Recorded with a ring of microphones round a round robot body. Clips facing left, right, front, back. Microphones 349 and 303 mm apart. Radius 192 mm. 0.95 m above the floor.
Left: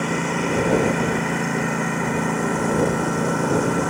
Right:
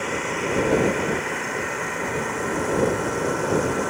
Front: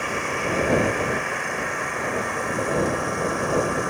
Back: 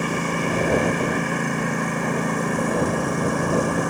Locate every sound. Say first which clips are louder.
0.0 s a lawn mower: left 4 dB, back 4 dB; 135° left